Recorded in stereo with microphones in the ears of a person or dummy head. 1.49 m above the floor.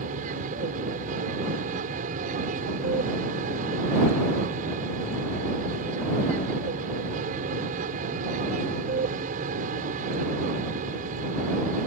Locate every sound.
0.0 s an aircraft: 45° right (ahead or behind)